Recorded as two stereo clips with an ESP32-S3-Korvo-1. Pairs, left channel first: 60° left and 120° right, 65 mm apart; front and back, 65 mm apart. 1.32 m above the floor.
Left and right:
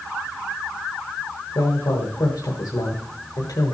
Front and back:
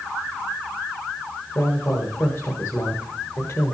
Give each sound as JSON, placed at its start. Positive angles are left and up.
{"t": 1.6, "sound": "a woman speaking", "azimuth_deg": 45, "distance_m": 1.3}